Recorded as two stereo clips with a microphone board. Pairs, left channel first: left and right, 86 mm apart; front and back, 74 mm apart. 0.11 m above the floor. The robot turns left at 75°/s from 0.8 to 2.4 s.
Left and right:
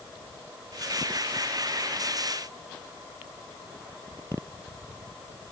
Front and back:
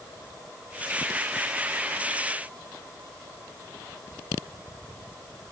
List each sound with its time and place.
Only background noise.